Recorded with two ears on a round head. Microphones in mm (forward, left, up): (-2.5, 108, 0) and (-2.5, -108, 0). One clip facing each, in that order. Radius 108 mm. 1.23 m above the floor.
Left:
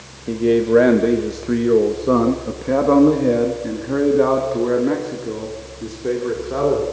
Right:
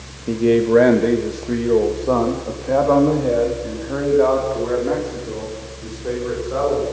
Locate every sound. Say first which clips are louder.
0.3 s a man speaking: even; 10° right (ahead or behind), 1.2 m; by 6.8 s 50° left (ahead or behind), 4 m